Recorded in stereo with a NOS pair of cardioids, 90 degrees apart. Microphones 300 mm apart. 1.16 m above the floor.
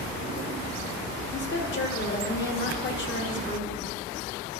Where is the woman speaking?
35° left, 1.9 m.